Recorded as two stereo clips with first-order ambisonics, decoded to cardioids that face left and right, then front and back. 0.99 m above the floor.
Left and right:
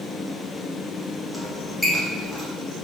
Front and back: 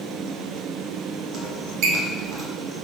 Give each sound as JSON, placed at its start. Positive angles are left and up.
{"t": 1.3, "sound": "a squeak", "azimuth_deg": 180, "distance_m": 0.6}